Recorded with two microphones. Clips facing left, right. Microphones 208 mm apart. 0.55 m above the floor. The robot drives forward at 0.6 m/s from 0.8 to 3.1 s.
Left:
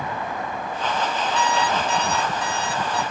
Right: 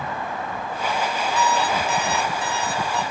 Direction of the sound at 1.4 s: 5° right (ahead or behind).